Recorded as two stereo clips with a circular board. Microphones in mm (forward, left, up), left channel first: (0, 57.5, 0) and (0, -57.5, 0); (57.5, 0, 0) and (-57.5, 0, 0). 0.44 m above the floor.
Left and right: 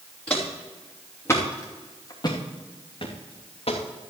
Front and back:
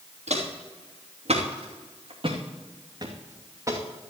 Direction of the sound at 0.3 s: 170° left.